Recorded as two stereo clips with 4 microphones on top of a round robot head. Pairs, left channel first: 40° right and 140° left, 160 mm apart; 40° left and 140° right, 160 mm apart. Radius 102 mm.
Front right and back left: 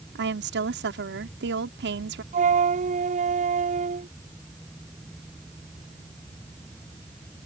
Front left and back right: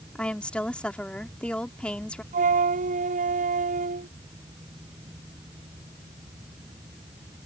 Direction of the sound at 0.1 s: 125° left.